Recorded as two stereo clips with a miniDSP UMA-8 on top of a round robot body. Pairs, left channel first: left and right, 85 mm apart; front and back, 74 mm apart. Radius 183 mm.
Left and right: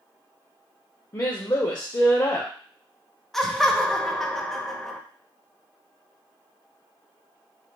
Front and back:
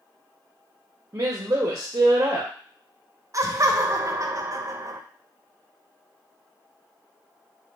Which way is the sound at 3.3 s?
175° left.